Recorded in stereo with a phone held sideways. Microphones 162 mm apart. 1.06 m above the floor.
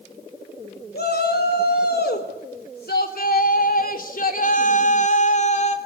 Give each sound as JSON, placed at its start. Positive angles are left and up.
{"t": 0.9, "sound": "a shout", "side_deg": 80, "distance_m": 4.0}